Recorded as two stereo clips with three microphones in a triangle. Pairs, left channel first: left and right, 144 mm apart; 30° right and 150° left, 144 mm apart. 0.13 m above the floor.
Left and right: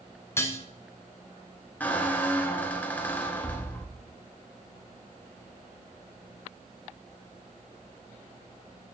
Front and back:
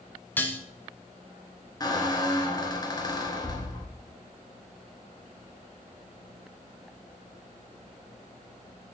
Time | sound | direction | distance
0.4 | dishes clattering | 35° left | 0.9 m
1.8 | a squeak | 15° left | 1.1 m